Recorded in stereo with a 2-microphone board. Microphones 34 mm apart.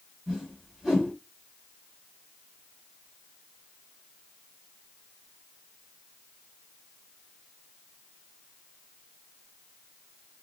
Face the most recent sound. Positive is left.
turn(degrees=-10)  # may be behind; listen again after turning